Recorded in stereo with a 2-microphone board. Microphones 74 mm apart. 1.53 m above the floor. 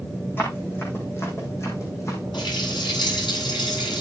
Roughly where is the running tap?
Left.